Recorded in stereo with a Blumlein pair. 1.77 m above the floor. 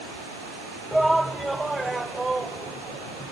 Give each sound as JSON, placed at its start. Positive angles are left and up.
{"t": 0.9, "sound": "a shout", "azimuth_deg": -5}